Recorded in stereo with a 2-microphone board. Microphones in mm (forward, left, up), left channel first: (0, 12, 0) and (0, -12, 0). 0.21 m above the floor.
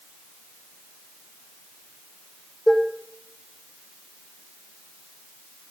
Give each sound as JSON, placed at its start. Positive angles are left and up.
{"t": 2.7, "sound": "dishes clattering", "side_deg": 10, "distance_m": 5.5}